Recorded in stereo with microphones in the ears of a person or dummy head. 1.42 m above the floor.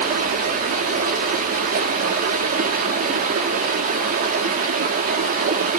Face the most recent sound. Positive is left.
turn(degrees=-50)  # may be behind; listen again after turning